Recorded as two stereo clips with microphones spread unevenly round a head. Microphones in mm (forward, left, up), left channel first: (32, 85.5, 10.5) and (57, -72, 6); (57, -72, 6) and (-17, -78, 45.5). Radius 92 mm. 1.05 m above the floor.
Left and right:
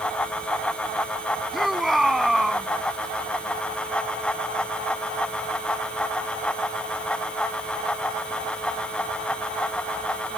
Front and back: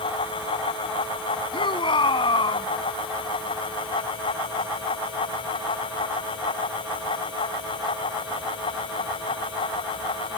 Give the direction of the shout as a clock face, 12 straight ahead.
12 o'clock.